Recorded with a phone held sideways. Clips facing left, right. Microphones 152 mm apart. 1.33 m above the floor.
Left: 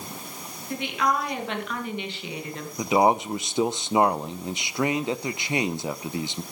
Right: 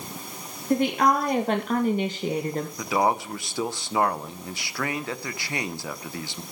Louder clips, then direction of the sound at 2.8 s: Left 4 dB; 20° left (ahead or behind).